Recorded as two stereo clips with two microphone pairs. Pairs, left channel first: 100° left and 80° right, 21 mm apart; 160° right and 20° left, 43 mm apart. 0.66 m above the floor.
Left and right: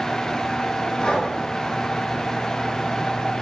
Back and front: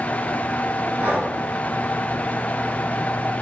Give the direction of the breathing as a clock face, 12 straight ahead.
10 o'clock.